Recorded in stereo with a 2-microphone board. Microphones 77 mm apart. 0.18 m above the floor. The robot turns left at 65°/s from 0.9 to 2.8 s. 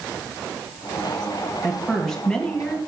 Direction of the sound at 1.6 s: 5° right (ahead or behind).